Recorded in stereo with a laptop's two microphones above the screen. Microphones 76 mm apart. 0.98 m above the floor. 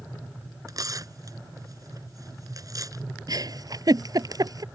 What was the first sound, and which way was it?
Tearing paper, 50° right (ahead or behind).